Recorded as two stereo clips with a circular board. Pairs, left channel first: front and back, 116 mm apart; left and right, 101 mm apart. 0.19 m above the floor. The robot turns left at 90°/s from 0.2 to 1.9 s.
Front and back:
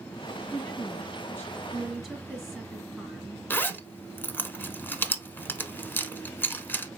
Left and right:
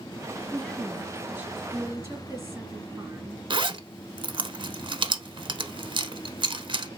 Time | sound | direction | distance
0.5 | a woman speaking | 35° left | 1.7 m
3.5 | a zipper | 70° right | 0.7 m